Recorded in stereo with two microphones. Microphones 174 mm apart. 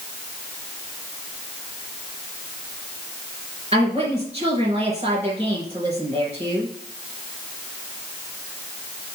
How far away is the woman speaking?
About 3 m.